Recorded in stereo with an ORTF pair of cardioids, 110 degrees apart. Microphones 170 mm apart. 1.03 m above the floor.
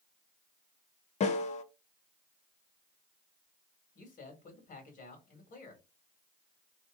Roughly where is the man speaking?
Ahead left.